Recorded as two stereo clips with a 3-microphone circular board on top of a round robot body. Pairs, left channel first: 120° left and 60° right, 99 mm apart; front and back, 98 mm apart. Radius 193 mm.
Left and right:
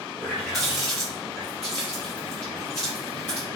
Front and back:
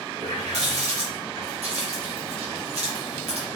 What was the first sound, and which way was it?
A running tap, 175° right.